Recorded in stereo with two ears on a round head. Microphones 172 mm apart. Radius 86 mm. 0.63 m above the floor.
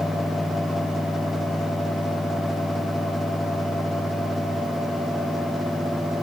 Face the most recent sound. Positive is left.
No sound to turn to.